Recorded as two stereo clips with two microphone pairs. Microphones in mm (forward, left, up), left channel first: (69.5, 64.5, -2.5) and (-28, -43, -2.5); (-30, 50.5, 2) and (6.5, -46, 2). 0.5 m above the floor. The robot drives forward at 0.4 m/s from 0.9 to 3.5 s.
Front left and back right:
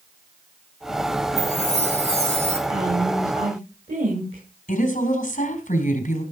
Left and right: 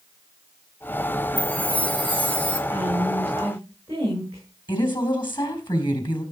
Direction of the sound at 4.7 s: 75° left.